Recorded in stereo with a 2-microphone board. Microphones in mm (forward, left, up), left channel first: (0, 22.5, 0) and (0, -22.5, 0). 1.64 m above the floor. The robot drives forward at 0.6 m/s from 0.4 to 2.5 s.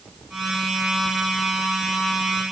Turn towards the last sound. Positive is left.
No sound to turn to.